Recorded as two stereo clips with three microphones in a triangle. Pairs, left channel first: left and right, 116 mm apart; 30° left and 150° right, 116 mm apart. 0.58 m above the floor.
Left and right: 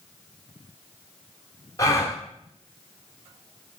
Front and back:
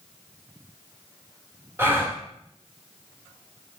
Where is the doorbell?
I don't hear a doorbell.